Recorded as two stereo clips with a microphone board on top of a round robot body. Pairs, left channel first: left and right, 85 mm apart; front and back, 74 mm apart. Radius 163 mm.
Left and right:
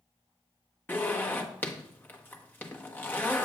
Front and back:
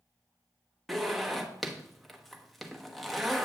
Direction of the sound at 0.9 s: 85° left.